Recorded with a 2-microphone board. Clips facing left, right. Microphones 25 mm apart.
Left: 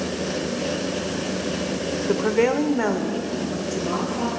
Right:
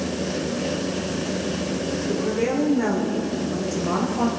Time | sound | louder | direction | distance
2.1 | a woman speaking | left 5 dB | 55° left (ahead or behind) | 1.2 m